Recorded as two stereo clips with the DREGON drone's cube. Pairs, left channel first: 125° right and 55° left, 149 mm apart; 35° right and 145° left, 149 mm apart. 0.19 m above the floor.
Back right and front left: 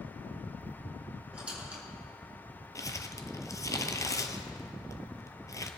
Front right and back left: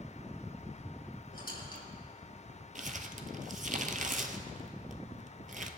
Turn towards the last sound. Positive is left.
turn(degrees=170)